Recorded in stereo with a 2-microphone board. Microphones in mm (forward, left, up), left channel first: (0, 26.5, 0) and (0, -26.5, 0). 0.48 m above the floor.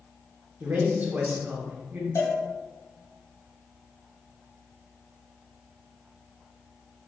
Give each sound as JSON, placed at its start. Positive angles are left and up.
{"t": 0.6, "sound": "a man speaking", "side_deg": -35, "distance_m": 0.9}
{"t": 2.1, "sound": "a cowbell", "side_deg": 65, "distance_m": 1.1}